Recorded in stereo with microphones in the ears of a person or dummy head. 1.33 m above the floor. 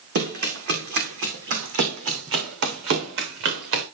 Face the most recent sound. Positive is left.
turn(degrees=-70)  # may be behind; listen again after turning